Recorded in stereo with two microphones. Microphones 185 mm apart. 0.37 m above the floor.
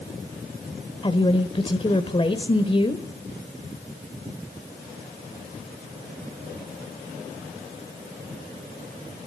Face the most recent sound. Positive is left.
turn(degrees=30)  # may be behind; listen again after turning